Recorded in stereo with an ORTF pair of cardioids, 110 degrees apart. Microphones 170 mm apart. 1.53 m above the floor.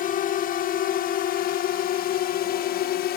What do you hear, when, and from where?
0.0 s a drone: 60° left; by 3.2 s 75° left